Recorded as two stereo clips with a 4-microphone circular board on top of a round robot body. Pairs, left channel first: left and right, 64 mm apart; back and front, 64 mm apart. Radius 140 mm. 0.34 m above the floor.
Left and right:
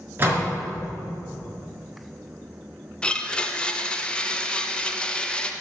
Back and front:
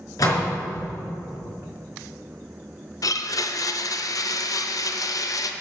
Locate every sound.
0.2 s a door slam: 150° right, 4 m
3.0 s a blender: 165° left, 0.9 m